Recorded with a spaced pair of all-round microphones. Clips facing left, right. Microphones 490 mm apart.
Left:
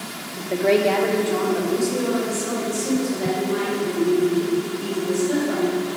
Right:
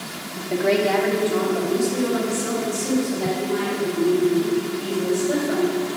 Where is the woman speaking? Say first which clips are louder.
Left 1 dB; 30° right (ahead or behind), 0.8 m; by 5.8 s 40° right (ahead or behind), 5 m.